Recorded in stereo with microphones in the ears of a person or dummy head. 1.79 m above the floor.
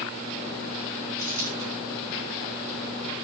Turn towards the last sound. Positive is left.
turn(degrees=-65)  # may be behind; listen again after turning